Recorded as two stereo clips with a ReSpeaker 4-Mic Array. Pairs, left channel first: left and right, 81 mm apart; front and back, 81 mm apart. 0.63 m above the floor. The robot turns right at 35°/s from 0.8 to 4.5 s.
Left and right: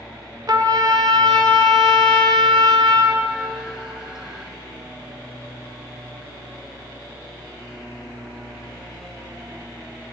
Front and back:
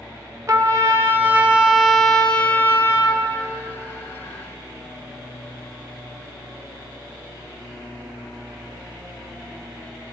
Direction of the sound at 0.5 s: 130° right.